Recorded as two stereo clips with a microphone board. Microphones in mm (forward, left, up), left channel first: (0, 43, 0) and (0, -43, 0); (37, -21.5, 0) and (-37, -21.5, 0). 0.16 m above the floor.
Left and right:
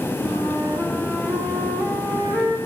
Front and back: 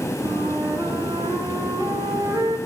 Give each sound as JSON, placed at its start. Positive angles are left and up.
{"t": 0.2, "sound": "a flute", "azimuth_deg": -155, "distance_m": 9.5}